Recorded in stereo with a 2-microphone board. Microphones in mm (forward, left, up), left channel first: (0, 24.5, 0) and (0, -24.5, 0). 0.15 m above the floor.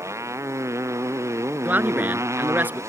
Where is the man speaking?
40° right (ahead or behind).